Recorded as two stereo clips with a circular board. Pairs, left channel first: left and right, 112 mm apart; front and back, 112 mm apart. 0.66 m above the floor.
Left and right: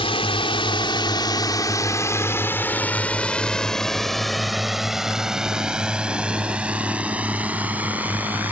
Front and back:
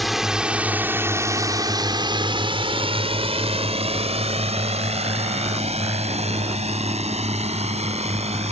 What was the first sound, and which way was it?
A drone, 90° left.